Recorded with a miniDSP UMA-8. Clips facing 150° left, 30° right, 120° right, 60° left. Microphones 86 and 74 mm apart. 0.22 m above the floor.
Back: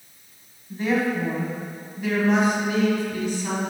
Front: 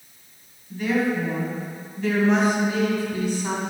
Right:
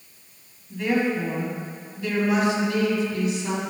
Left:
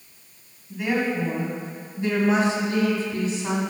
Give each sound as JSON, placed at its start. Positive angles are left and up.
{"t": 0.7, "sound": "a woman speaking", "azimuth_deg": 135, "distance_m": 1.8}